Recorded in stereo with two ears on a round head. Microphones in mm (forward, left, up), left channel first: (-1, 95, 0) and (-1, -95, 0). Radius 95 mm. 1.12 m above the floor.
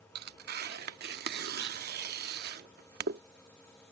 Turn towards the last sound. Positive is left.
turn(degrees=-50)  # may be behind; listen again after turning